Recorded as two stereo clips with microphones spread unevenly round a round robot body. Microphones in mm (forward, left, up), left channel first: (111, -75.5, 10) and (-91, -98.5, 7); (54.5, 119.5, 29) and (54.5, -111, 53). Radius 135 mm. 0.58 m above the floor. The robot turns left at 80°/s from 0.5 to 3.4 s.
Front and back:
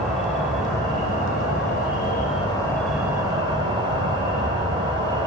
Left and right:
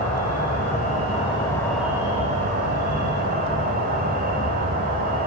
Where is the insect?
105° left, 1.9 m; by 5.3 s 125° right, 1.9 m.